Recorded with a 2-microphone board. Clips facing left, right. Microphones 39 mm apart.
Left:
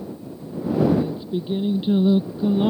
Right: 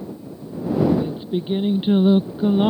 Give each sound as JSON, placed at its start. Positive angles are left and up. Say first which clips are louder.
{"t": 1.0, "sound": "singing", "louder": "right 1 dB", "side_deg": -40}